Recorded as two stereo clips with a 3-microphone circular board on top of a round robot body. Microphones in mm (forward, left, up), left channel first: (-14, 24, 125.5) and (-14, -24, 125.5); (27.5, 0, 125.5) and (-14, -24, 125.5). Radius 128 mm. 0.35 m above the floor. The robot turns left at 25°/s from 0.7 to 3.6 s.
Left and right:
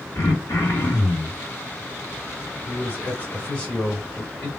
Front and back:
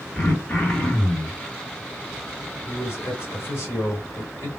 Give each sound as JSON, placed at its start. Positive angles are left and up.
{"t": 0.1, "sound": "throat clearing", "azimuth_deg": 105, "distance_m": 1.5}
{"t": 2.6, "sound": "a man speaking", "azimuth_deg": 50, "distance_m": 2.0}